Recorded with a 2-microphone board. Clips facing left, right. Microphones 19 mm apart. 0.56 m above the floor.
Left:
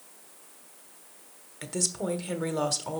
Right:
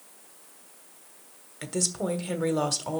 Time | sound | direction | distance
1.6 | a woman speaking | centre (ahead or behind) | 1.3 m